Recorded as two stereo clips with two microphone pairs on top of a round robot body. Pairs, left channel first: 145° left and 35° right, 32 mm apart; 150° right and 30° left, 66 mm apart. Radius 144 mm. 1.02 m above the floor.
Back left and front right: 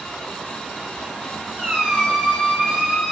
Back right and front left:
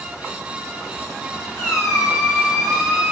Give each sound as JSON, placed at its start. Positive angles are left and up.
{"t": 1.6, "sound": "a squeak", "azimuth_deg": 180, "distance_m": 0.7}